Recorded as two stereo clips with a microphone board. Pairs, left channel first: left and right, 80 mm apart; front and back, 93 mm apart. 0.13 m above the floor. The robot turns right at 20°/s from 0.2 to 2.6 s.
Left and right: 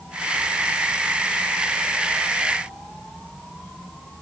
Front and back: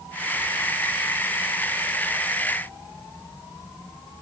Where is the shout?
I don't hear a shout.